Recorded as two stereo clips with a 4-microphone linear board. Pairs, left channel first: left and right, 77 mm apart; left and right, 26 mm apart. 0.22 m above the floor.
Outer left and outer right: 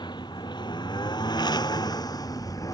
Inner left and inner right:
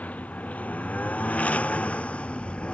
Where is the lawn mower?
85° left; by 2.7 s 50° left (ahead or behind).